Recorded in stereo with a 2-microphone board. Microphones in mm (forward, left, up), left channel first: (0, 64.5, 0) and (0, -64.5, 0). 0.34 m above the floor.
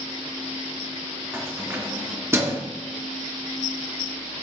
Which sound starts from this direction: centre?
Keys jangling, at 1.3 s.